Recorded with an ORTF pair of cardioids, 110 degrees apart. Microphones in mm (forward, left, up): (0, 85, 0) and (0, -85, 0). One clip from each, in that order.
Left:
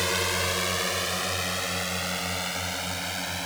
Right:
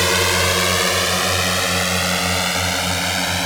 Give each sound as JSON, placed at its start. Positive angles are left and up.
{"t": 0.0, "sound": "a drone", "azimuth_deg": -55}